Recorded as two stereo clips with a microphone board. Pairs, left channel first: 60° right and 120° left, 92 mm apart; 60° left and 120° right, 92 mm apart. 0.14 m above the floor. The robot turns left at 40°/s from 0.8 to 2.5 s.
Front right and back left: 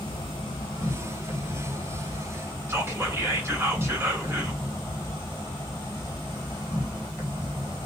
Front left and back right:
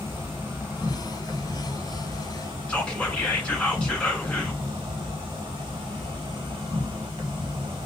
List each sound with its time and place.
0.0 s an insect: 55° right, 0.7 m; by 7.9 s 120° right, 0.7 m
2.7 s whispering: 120° left, 1.4 m